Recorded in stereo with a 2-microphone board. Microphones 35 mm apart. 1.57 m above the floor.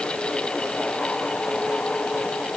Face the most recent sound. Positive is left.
No sound to turn to.